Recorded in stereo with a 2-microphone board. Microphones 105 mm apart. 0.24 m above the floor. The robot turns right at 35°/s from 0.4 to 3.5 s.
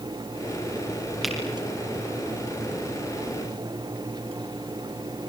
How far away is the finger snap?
About 5.5 m.